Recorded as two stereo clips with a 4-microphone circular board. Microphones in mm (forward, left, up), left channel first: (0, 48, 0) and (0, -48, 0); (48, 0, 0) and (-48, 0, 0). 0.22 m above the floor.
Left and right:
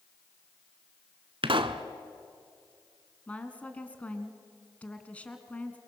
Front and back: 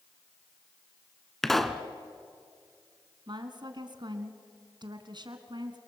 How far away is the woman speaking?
About 1.9 m.